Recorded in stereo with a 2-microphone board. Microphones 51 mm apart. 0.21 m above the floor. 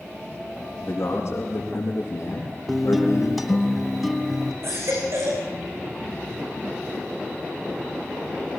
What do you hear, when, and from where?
0.8 s a man speaking: 50° left (ahead or behind), 8 m; by 3.7 s 75° left (ahead or behind), 5 m
2.7 s a guitar: centre (ahead or behind), 1.1 m
4.6 s a baby crying: 55° right (ahead or behind), 6.5 m